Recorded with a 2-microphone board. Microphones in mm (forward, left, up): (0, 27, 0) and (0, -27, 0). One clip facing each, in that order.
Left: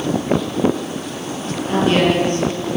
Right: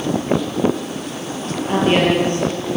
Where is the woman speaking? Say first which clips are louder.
Even; 25° right (ahead or behind), 9.5 m.